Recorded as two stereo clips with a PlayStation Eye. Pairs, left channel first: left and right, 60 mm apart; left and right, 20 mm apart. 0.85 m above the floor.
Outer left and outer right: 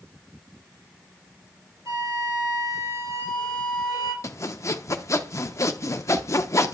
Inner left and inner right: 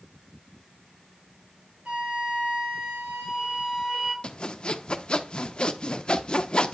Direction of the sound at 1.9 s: 70° right (ahead or behind).